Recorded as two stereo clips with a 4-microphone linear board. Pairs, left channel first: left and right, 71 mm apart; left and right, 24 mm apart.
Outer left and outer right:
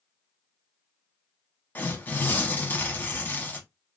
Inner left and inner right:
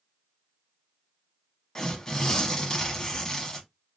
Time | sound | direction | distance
1.8 | tearing paper | 25° left (ahead or behind) | 0.7 m